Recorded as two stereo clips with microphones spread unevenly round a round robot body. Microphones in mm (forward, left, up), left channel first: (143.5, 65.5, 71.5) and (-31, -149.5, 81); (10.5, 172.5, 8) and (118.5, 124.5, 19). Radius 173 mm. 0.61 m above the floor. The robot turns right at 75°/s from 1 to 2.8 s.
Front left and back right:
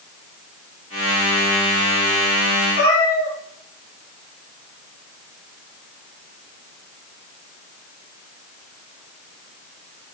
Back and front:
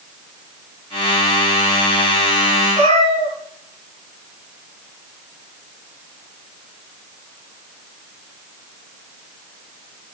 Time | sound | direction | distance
2.8 | a cat meowing | 5° left | 2.5 m